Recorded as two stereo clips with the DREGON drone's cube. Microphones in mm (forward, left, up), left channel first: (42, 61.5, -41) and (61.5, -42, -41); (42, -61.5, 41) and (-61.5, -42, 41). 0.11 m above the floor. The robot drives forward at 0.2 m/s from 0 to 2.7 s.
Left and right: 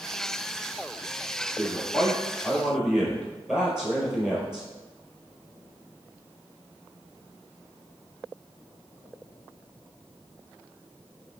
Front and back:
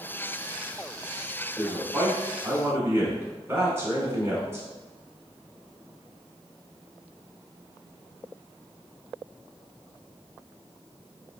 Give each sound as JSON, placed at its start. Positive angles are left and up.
{"t": 1.6, "sound": "a man speaking", "azimuth_deg": -140, "distance_m": 1.1}